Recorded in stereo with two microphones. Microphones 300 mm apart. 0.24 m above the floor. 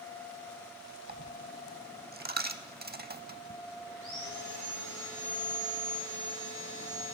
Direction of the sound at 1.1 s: 30° right (ahead or behind).